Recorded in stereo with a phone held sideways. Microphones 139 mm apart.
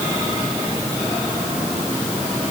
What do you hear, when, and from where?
Only background noise.